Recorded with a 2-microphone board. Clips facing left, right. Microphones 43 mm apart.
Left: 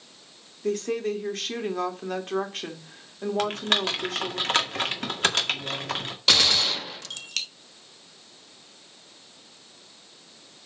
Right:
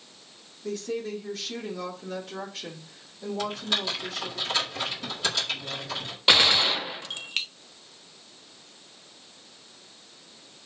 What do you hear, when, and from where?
0.6 s a woman speaking: 55° left (ahead or behind), 2 m
3.4 s typing on a keyboard: 55° left (ahead or behind), 1.9 m
6.3 s a gunshot: 20° right (ahead or behind), 0.6 m